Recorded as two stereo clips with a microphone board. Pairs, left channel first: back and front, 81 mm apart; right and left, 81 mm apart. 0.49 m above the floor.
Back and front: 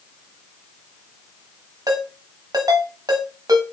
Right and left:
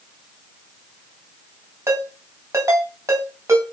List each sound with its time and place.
1.9 s a ringtone: 40° left, 2.5 m